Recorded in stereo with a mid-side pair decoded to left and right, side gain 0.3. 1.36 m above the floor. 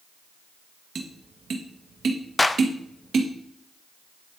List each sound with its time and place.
0.9 s tapping: 65° right, 1.8 m
2.4 s a clap: 20° left, 0.7 m